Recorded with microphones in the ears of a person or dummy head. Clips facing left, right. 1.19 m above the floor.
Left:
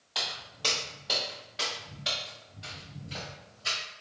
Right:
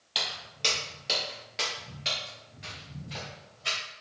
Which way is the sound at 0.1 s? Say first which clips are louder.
Right 1 dB; 40° right (ahead or behind).